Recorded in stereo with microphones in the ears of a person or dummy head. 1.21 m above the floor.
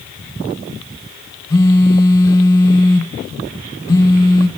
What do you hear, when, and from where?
1.5 s a phone buzzing: 15° left (ahead or behind), 0.6 m